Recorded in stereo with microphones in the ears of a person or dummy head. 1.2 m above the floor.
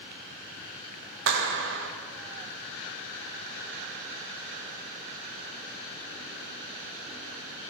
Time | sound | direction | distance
1.3 | a clap | 70° right (ahead or behind) | 1.0 m